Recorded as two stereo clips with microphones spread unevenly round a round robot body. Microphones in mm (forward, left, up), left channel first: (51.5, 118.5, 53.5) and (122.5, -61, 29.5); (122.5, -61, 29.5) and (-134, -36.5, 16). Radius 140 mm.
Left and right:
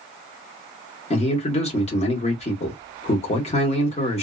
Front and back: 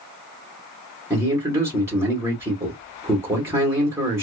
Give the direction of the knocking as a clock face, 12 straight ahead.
No knocking in this recording.